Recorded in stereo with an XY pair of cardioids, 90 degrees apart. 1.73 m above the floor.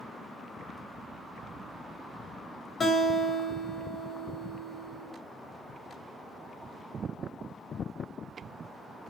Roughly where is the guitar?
Ahead left.